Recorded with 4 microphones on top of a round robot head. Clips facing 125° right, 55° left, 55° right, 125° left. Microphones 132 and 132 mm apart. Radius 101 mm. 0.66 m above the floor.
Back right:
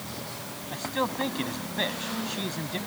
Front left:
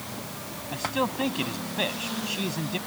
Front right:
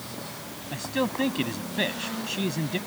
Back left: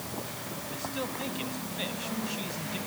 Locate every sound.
0.7 s a man speaking: 30° right